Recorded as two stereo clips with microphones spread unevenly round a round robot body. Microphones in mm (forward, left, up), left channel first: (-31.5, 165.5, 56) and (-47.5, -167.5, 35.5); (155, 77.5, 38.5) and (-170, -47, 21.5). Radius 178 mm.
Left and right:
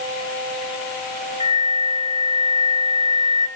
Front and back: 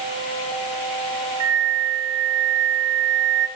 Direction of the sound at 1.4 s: 160° right.